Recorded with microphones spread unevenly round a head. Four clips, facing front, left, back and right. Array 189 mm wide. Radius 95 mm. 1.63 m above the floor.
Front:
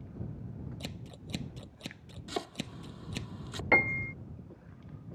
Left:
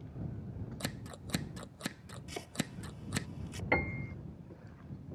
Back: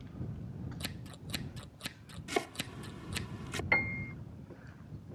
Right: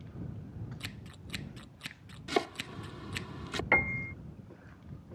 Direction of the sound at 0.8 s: 70° left.